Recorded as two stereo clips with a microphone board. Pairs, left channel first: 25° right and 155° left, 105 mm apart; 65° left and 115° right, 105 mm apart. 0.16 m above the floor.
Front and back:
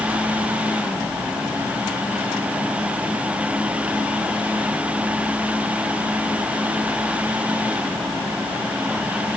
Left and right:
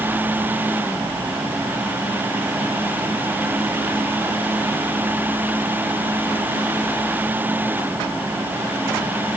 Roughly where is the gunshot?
No gunshot in this recording.